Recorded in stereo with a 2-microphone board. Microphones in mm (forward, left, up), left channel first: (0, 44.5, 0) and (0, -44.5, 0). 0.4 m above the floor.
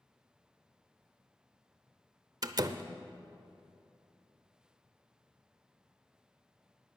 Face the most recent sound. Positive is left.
turn(degrees=-45)  # may be behind; listen again after turning